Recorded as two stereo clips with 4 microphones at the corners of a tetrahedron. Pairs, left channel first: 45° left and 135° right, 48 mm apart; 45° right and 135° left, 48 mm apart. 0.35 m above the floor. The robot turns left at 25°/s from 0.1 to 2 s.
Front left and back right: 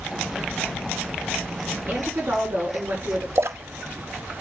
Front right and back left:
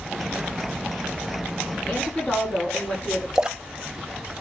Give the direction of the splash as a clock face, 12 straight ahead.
5 o'clock.